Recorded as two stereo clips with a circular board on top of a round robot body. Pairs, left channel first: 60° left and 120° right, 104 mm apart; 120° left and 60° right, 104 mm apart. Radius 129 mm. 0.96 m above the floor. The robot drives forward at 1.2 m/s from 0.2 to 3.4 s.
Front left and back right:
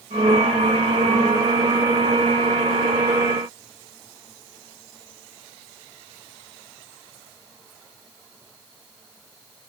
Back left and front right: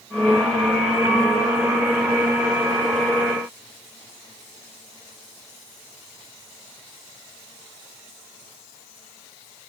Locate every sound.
Only background noise.